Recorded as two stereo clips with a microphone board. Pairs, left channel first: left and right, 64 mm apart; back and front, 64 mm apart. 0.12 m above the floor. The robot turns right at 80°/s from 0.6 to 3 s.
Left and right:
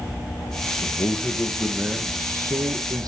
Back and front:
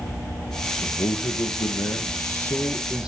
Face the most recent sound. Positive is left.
turn(degrees=-75)